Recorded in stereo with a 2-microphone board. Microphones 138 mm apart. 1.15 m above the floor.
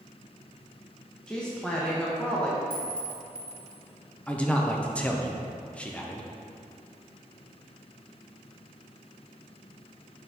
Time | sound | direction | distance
1.3 | a woman speaking | 5° left (ahead or behind) | 0.9 m
2.7 | a clink | 35° right (ahead or behind) | 1.6 m
4.3 | a man speaking | 10° left (ahead or behind) | 0.7 m